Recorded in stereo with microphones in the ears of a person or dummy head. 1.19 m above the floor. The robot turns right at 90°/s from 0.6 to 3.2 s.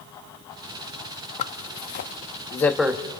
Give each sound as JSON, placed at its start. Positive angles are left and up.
{"t": 1.4, "sound": "a zipper", "side_deg": 35, "distance_m": 0.7}